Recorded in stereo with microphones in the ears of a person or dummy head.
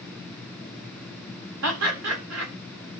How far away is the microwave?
No microwave in this recording.